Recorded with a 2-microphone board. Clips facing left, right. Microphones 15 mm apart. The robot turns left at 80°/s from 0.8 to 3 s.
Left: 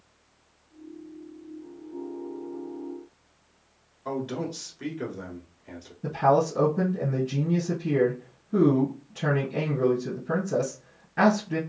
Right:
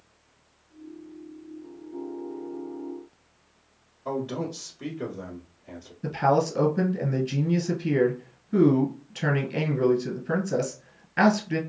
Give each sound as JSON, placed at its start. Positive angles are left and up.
{"t": 4.0, "sound": "a man speaking", "side_deg": 20, "distance_m": 1.1}
{"t": 6.0, "sound": "a man speaking", "side_deg": -30, "distance_m": 1.6}